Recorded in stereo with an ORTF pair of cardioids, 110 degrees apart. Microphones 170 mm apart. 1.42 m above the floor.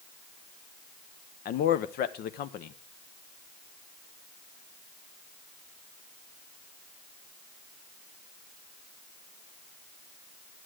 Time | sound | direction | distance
1.4 | a man speaking | 65° left | 0.7 m